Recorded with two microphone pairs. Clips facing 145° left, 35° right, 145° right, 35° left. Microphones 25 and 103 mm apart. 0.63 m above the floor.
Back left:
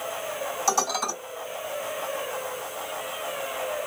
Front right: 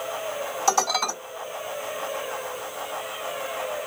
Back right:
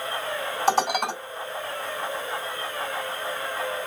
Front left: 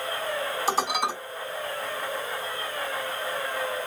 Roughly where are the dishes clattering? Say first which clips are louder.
Front right 3 dB, back right 5 dB; behind right.